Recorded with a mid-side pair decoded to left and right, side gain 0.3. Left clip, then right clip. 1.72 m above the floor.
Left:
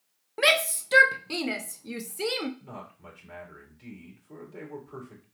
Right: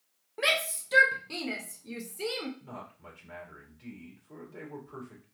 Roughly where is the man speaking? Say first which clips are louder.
Left 1 dB; ahead left.